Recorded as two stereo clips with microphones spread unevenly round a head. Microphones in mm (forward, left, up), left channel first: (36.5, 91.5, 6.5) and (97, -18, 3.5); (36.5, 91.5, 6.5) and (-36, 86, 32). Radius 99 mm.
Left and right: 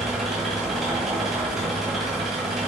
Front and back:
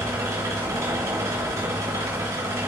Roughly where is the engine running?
Behind right.